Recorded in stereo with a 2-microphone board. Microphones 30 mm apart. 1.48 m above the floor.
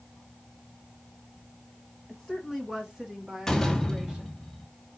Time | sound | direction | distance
2.1 | a woman speaking | 5° right (ahead or behind) | 1.6 m
3.5 | a door slam | 15° left (ahead or behind) | 1.4 m